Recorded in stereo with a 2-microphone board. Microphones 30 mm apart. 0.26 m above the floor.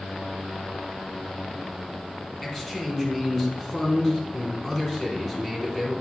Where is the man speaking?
5° left (ahead or behind), 2.5 m.